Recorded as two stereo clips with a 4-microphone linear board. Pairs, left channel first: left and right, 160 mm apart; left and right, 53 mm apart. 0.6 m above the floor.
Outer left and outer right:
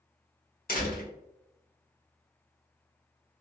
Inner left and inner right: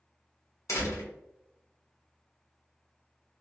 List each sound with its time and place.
0.7 s a door slam: 65° left (ahead or behind), 1.0 m